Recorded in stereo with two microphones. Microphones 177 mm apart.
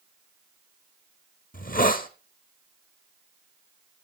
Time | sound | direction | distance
1.5 | a hiss | 50° left (ahead or behind) | 1.0 m